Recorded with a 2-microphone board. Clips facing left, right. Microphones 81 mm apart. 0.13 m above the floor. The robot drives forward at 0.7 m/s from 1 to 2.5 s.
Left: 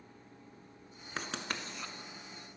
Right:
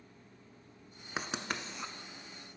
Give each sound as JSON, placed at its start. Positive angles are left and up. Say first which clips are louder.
{"t": 1.2, "sound": "writing", "louder": "right 2 dB", "side_deg": -15, "distance_m": 0.8}